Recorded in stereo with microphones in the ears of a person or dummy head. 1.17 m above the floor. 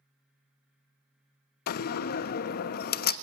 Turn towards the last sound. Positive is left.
turn(degrees=50)  # may be behind; listen again after turning